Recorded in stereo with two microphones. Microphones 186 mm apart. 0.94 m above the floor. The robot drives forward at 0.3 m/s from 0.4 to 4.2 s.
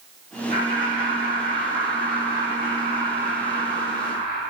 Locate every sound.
0.5 s laughter: 75° right (ahead or behind), 3.5 m; by 4.4 s 60° right (ahead or behind), 3.5 m